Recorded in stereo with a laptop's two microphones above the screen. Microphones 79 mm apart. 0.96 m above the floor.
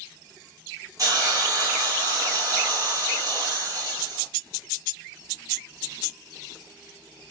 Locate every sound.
1.0 s a hiss: 45° right (ahead or behind), 1.0 m